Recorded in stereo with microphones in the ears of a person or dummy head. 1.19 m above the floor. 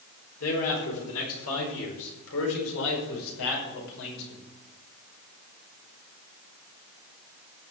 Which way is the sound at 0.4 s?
85° left.